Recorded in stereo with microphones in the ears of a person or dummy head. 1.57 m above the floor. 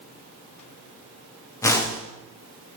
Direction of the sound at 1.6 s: 20° left (ahead or behind).